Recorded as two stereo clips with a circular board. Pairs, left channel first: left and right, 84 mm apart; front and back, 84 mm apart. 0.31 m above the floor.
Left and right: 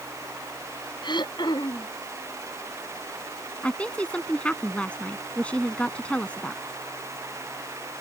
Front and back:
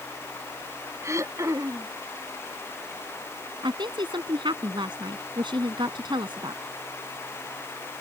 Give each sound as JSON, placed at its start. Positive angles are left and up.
{"t": 1.0, "sound": "throat clearing", "azimuth_deg": 125}
{"t": 3.6, "sound": "a woman speaking", "azimuth_deg": 165}